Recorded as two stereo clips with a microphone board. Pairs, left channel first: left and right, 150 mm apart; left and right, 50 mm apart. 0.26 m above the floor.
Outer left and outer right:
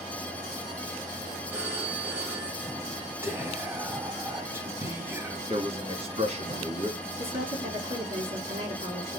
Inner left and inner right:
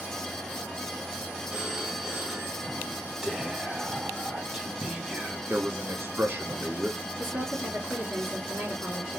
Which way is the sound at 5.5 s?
50° right (ahead or behind).